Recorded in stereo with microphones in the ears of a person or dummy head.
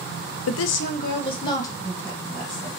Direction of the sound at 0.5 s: 80° left.